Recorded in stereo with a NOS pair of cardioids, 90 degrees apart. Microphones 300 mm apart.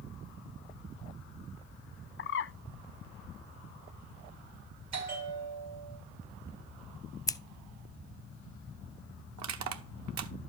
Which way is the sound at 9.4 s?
65° right.